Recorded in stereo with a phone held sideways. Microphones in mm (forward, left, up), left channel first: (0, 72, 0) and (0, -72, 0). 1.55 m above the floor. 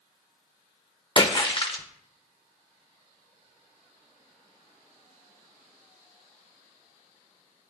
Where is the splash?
35° left (ahead or behind), 1.0 m.